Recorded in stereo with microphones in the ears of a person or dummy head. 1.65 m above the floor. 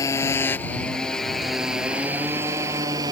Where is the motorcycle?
20° left (ahead or behind); by 3.1 s 20° right (ahead or behind).